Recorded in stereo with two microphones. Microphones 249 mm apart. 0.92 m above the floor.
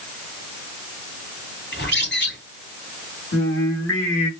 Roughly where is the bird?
Left.